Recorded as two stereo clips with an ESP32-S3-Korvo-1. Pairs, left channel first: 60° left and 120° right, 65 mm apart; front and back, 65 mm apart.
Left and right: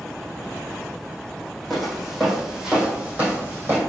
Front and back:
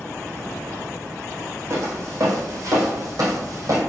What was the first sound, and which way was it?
Footsteps, 150° left.